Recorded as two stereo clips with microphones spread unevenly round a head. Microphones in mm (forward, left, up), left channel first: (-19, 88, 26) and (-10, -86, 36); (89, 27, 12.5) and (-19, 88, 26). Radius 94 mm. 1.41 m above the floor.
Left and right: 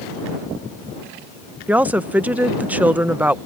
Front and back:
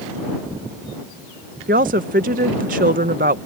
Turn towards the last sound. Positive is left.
turn(degrees=-170)